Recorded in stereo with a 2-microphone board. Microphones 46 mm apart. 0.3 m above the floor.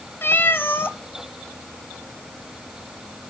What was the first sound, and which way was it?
A cat meowing, 55° left (ahead or behind).